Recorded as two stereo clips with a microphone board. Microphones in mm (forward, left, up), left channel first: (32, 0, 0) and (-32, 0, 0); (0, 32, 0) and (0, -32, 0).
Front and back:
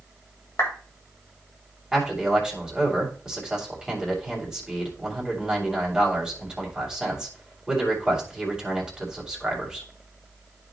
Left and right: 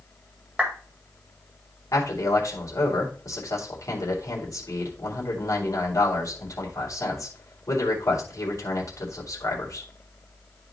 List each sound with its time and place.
0.6 s a clap: 20° right, 1.9 m
1.9 s a man speaking: 100° left, 2.5 m